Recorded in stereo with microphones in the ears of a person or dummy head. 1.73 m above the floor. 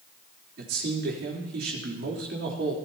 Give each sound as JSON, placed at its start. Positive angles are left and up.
{"t": 0.6, "sound": "a man speaking", "side_deg": -70, "distance_m": 3.5}